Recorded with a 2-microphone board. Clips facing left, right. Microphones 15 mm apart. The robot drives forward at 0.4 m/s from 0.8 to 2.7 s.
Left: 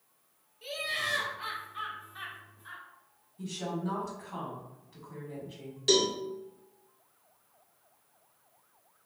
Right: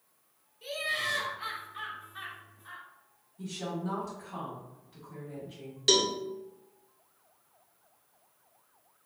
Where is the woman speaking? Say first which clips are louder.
Left 1 dB; 5° right (ahead or behind), 0.9 m.